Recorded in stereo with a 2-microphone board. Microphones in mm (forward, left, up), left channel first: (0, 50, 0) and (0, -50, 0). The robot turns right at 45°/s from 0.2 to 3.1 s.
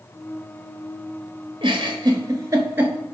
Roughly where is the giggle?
Right.